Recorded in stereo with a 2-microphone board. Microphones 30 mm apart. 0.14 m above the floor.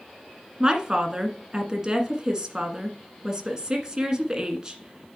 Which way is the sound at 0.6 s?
25° right (ahead or behind).